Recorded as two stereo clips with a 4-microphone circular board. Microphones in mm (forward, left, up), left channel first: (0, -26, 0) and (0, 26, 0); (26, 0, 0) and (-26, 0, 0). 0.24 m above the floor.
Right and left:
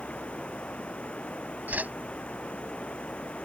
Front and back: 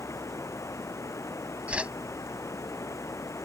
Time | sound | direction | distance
0.0 | running water | 20° right | ?
1.7 | a whoosh | 125° left | ?